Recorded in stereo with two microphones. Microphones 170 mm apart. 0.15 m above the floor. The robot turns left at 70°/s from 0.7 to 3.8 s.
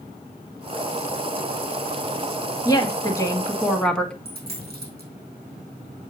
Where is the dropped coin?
65° right (ahead or behind), 3 m.